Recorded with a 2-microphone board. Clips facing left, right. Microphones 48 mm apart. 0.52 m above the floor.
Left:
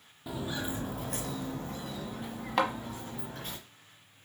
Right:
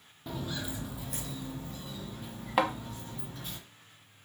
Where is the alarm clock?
I don't hear an alarm clock.